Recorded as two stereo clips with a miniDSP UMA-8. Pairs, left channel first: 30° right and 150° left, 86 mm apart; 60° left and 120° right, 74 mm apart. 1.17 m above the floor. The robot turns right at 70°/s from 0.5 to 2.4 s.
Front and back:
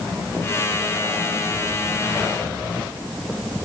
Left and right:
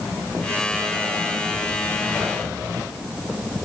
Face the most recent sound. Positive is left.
No sound to turn to.